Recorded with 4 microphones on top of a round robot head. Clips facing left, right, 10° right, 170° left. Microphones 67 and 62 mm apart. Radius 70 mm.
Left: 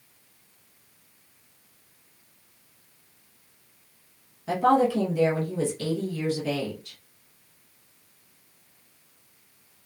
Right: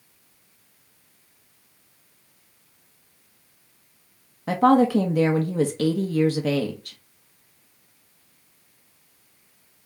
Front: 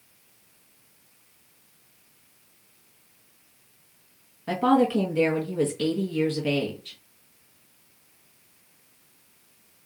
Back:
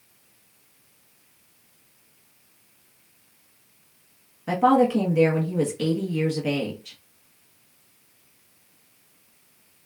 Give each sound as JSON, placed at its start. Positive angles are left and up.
{"t": 4.5, "sound": "a woman speaking", "azimuth_deg": -110, "distance_m": 0.8}